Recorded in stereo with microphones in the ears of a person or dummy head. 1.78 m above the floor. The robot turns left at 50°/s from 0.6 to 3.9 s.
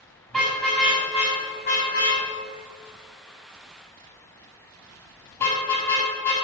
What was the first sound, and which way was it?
A car horn, centre (ahead or behind).